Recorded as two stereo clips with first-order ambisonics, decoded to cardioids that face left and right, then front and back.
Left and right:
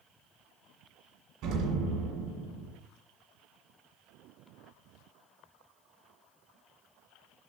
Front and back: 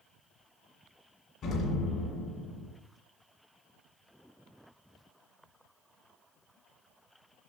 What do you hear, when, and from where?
1.4 s an explosion: 50° right, 2 m